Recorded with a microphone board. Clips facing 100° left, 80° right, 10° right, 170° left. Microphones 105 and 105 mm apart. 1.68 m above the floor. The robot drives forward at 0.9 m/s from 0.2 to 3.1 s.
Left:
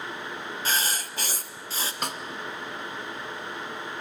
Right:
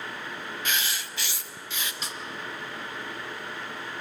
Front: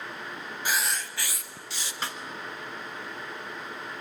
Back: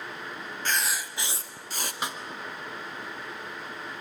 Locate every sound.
0.7 s writing: 65° left, 0.9 m; by 1.9 s 150° left, 1.2 m
2.0 s a snare drum: 100° left, 1.3 m; by 2.2 s 110° left, 1.3 m